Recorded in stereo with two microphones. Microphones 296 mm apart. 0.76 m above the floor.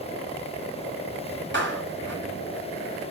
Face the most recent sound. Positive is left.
turn(degrees=-40)  # may be behind; listen again after turning